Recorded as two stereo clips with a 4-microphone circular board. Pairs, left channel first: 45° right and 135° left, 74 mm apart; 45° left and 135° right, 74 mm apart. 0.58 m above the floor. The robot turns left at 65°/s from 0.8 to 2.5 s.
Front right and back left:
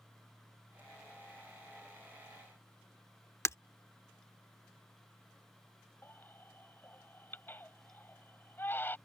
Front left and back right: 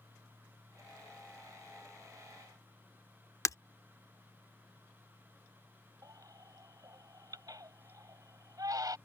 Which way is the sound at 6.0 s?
105° right.